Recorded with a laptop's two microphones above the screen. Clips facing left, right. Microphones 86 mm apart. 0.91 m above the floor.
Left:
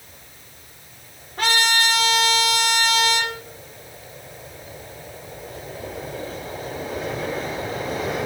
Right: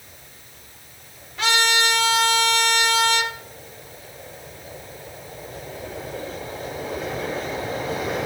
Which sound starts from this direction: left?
A trumpet, at 1.4 s.